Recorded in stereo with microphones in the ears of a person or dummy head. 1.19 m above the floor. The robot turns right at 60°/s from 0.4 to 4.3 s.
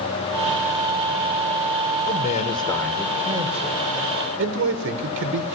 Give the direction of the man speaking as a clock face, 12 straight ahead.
8 o'clock.